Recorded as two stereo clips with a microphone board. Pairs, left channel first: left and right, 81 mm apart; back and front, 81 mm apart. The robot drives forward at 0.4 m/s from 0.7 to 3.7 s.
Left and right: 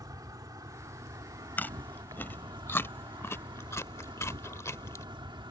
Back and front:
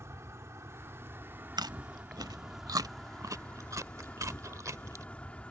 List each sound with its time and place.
0.0 s an insect: 55° right; by 5.5 s 105° right
1.6 s chewing: 25° left; by 5.0 s 40° left